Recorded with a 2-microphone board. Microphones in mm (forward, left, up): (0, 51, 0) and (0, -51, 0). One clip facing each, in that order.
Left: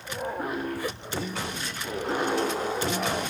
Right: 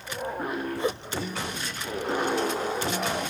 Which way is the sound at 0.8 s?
25° right (ahead or behind).